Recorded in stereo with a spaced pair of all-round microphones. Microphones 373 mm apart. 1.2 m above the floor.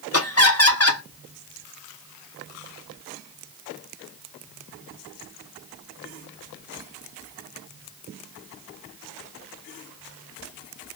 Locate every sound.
0.1 s laughter: 40° left (ahead or behind), 1.1 m